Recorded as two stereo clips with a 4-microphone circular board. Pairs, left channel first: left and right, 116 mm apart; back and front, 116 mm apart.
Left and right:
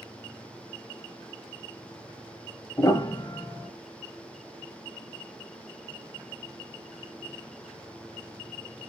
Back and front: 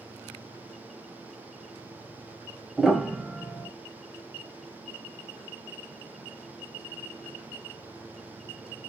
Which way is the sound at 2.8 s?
85° left.